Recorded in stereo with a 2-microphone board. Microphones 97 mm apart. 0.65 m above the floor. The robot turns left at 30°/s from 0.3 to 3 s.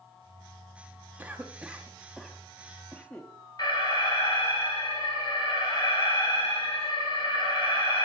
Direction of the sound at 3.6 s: 45° left (ahead or behind).